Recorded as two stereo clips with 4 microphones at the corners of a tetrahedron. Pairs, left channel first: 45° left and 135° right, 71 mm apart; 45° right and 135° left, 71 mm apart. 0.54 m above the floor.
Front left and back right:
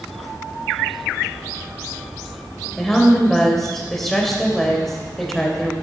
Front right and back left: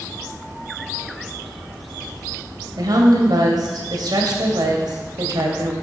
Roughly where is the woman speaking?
Behind left.